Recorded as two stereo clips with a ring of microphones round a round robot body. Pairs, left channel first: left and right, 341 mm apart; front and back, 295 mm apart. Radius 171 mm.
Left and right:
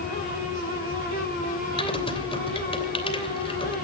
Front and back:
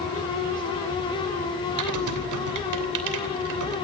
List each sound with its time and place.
1.8 s typing on a keyboard: 165° left, 3 m